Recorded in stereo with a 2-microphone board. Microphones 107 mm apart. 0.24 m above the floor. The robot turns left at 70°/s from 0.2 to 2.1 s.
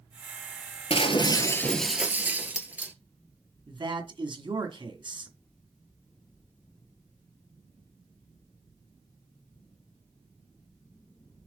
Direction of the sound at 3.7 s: 50° right (ahead or behind).